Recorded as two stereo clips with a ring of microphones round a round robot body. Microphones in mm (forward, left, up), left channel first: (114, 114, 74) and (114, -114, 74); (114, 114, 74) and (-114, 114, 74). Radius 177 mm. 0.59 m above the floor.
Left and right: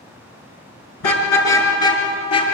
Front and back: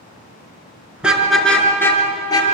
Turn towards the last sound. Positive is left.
turn(degrees=75)